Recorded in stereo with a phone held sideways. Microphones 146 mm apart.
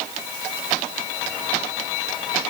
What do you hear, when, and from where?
Only background noise.